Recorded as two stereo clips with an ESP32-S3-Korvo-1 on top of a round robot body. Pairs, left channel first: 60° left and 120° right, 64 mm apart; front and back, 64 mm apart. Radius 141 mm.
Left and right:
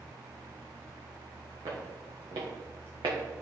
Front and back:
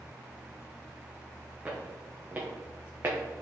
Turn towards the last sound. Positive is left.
turn(degrees=-125)